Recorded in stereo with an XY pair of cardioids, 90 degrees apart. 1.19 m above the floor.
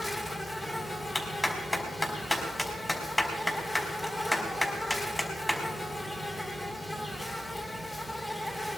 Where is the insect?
20° left, 2.5 m.